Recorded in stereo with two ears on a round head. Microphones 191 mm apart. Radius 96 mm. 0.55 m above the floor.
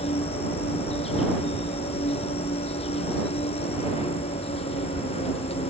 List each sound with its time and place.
0.0 s an insect: 30° left (ahead or behind)